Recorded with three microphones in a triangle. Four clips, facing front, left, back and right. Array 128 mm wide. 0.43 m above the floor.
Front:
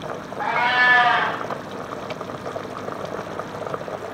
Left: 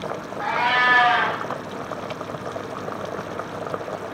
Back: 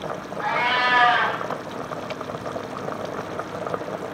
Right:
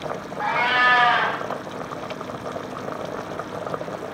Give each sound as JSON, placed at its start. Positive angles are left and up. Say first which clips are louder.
{"t": 0.4, "sound": "a cat meowing", "louder": "even, front 3 dB", "azimuth_deg": -15, "distance_m": 1.4}